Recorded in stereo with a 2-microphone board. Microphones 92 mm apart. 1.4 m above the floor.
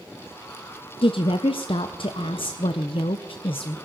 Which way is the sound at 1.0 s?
70° left (ahead or behind).